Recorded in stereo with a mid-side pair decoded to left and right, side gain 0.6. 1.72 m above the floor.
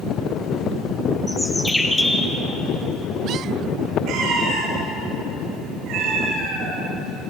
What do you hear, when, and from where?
1.3 s a bird: 10° left, 1.7 m
4.1 s a cat meowing: 65° right, 7 m